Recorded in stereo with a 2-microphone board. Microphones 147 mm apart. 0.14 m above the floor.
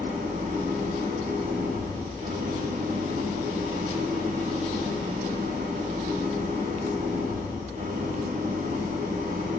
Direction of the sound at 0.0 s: 75° right (ahead or behind).